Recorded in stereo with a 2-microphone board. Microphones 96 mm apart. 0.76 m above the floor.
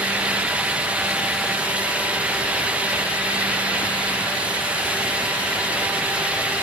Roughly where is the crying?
No crying in this recording.